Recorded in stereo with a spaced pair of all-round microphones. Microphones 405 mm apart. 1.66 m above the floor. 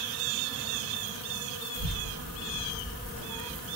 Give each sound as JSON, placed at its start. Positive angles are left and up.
{"t": 1.8, "sound": "a child speaking", "side_deg": 60, "distance_m": 1.4}